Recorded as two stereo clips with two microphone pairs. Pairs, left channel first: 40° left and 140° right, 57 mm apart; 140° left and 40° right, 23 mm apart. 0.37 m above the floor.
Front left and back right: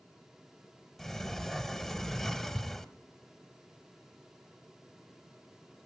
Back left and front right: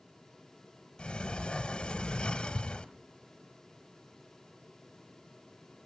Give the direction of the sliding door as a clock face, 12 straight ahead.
8 o'clock.